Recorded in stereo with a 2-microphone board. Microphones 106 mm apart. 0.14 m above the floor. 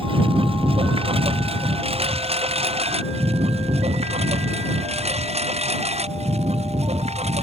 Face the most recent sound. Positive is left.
turn(degrees=-90)